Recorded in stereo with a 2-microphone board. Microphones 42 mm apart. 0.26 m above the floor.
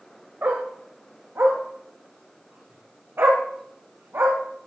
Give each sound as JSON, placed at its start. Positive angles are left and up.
{"t": 0.4, "sound": "a dog barking", "side_deg": -60, "distance_m": 4.5}